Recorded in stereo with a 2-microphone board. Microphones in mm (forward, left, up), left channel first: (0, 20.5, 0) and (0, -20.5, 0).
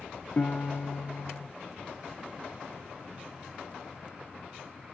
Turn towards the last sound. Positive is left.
turn(degrees=45)  # may be behind; listen again after turning